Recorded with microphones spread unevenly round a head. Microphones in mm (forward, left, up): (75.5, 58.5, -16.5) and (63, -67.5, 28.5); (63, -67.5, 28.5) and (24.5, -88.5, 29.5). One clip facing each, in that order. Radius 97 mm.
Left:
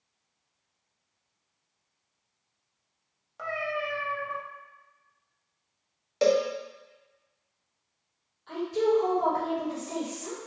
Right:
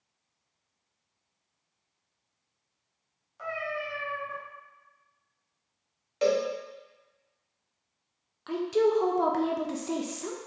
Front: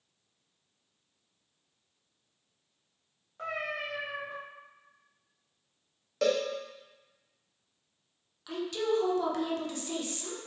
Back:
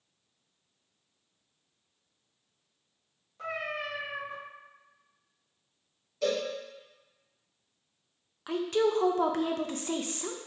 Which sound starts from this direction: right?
A woman speaking, at 8.5 s.